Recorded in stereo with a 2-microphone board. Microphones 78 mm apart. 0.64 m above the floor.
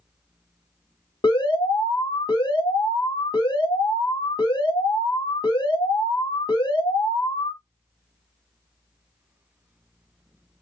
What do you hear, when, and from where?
1.2 s an alarm: 75° left (ahead or behind), 1.4 m